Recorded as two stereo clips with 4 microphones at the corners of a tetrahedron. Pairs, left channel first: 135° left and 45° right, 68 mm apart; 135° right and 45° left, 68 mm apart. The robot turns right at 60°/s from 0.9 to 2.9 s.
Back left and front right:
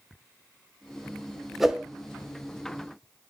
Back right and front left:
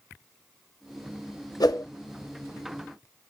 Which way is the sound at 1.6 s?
135° right.